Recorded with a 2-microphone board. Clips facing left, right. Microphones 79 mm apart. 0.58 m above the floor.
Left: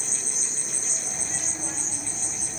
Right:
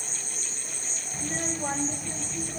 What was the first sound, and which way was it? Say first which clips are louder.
An insect: left 2 dB; 80° left.